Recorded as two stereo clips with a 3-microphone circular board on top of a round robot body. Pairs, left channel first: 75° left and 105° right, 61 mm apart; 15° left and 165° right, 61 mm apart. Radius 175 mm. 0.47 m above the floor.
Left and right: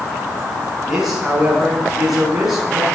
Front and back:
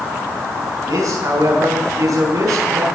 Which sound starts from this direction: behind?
A man speaking, at 0.9 s.